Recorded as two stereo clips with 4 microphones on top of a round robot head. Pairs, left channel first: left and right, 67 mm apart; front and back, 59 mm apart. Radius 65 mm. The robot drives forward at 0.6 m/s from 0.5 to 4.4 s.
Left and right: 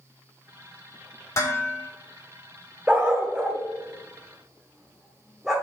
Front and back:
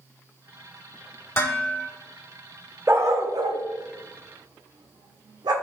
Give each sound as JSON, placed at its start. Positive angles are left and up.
{"t": 1.4, "sound": "dishes clattering", "azimuth_deg": 45, "distance_m": 2.5}
{"t": 2.9, "sound": "a dog barking", "azimuth_deg": -155, "distance_m": 0.6}